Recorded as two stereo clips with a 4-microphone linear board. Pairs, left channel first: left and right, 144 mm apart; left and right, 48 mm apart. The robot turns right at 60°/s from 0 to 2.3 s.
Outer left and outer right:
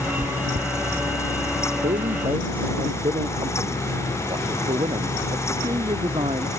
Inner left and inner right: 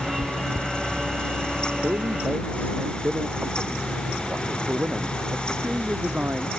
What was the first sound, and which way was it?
Chewing, 75° right (ahead or behind).